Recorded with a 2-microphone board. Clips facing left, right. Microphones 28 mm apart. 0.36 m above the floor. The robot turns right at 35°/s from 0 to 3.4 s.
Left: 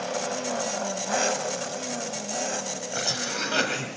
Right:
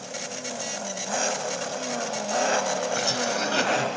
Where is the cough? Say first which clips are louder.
Right 3 dB; 10° right (ahead or behind), 1.9 m; by 3.9 s 5° left (ahead or behind), 1.9 m.